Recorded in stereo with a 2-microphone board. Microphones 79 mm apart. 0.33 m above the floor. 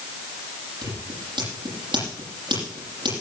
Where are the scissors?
80° right, 10 m.